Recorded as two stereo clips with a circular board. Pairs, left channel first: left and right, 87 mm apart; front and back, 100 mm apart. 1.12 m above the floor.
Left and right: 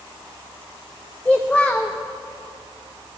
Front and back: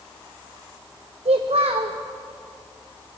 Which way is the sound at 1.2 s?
165° left.